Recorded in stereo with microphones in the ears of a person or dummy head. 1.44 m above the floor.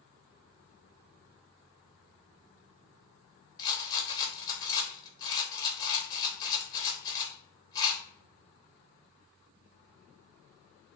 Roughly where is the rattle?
Left.